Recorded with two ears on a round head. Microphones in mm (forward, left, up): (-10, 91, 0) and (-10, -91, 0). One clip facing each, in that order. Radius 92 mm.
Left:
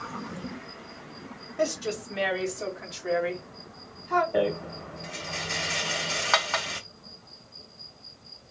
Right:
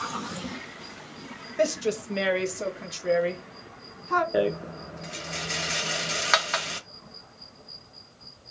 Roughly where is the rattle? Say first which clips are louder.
Right 1 dB; centre.